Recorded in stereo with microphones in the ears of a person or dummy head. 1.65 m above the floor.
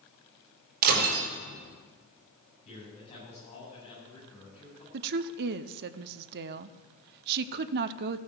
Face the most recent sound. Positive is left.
turn(degrees=-50)  # may be behind; listen again after turning